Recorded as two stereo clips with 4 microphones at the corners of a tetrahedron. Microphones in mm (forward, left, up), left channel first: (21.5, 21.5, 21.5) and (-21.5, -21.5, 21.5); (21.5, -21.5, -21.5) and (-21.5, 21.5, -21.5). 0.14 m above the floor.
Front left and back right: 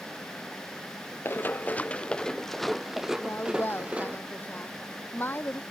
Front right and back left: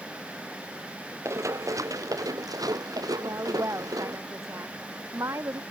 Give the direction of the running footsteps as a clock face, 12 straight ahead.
9 o'clock.